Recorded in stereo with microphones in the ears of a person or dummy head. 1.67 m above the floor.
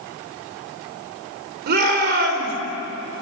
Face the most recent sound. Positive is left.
turn(degrees=-55)  # may be behind; listen again after turning